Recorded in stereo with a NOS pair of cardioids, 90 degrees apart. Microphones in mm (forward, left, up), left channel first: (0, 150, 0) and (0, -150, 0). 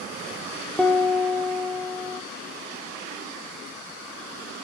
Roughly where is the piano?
Ahead.